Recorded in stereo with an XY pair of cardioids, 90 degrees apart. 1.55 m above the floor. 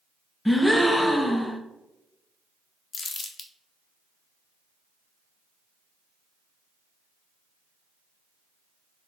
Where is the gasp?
10° left, 0.5 m.